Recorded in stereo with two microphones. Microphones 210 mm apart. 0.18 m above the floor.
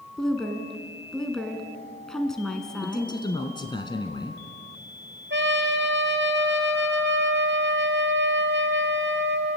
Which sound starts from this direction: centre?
A woman speaking, at 0.2 s.